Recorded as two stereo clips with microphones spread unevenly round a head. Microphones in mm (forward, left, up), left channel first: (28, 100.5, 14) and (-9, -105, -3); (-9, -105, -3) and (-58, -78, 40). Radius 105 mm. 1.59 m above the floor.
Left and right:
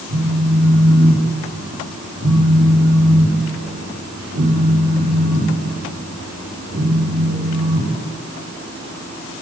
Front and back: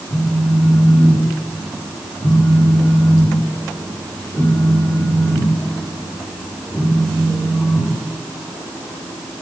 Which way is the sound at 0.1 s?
100° right.